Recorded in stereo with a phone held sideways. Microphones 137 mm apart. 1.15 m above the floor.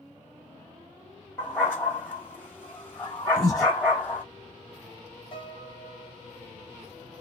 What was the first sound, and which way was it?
A dog barking, 15° left (ahead or behind).